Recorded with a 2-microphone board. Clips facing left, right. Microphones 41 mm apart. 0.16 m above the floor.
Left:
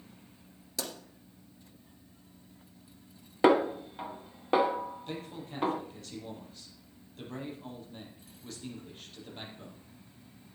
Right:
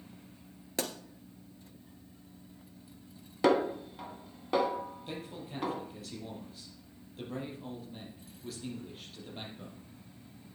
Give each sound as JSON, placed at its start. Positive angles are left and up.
{"t": 0.8, "sound": "a pop", "side_deg": -35, "distance_m": 1.4}
{"t": 3.4, "sound": "a snare drum", "side_deg": 25, "distance_m": 0.7}
{"t": 5.1, "sound": "a man speaking", "side_deg": -5, "distance_m": 4.5}